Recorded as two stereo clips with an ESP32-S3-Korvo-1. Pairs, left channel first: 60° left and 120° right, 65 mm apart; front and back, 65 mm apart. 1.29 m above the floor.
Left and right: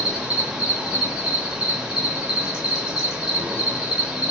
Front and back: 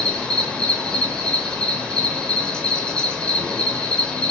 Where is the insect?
55° right, 0.7 m.